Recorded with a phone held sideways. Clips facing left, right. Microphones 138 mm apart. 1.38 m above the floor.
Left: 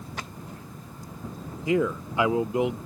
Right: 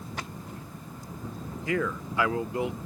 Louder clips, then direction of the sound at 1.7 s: Left 5 dB; 20° left (ahead or behind).